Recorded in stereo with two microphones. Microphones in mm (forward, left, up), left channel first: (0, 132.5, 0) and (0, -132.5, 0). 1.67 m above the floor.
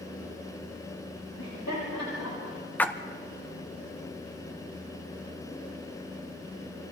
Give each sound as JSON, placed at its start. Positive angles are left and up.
{"t": 1.4, "sound": "laughter", "side_deg": 85, "distance_m": 6.0}
{"t": 2.8, "sound": "a splash", "side_deg": 5, "distance_m": 0.9}